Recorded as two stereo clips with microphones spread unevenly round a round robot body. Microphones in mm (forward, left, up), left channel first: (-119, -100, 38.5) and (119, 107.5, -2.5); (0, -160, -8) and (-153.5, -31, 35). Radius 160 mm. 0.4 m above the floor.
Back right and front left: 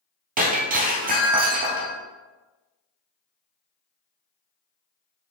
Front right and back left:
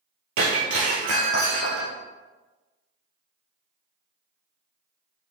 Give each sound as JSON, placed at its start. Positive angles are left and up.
{"t": 0.4, "sound": "breaking glass", "azimuth_deg": 110, "distance_m": 1.5}